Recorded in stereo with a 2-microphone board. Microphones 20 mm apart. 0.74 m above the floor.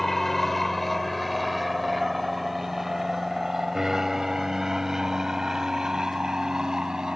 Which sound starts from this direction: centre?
An aircraft, at 0.0 s.